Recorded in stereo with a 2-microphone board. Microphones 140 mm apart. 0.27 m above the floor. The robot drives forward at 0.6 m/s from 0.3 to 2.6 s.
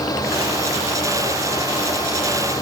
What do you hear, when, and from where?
Only background noise.